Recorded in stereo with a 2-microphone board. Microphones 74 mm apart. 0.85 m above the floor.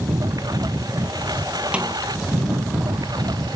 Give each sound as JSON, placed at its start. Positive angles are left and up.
{"t": 0.0, "sound": "a lawn mower", "side_deg": -60}
{"t": 1.7, "sound": "a snare drum", "side_deg": -15}